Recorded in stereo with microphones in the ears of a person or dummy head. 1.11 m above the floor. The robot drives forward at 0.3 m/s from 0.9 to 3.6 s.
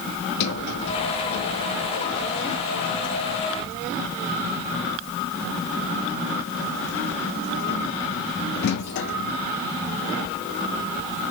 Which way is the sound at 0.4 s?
60° left (ahead or behind).